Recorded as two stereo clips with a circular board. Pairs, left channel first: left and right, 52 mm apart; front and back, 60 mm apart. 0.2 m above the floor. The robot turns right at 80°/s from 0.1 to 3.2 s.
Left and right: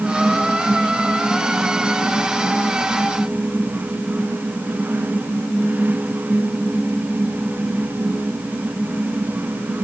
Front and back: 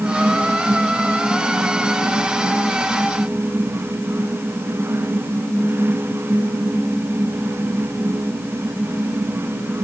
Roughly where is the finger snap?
No finger snap in this recording.